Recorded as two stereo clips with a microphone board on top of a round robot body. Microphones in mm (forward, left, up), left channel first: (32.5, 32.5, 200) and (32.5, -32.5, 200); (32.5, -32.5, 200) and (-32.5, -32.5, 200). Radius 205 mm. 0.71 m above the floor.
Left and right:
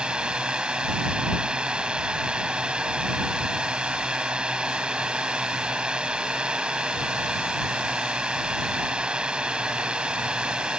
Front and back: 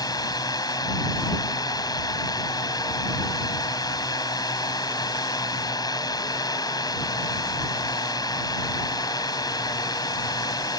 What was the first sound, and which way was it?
A drone, 15° right.